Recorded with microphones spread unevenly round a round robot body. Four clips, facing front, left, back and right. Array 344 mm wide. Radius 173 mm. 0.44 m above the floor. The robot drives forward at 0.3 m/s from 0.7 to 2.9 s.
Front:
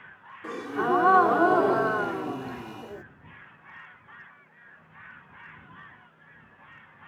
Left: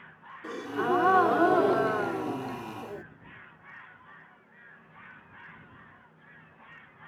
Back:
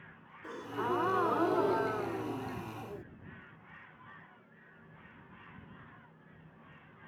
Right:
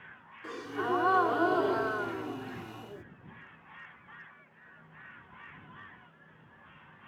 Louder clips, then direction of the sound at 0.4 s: Left 4 dB, front 8 dB; 30° left.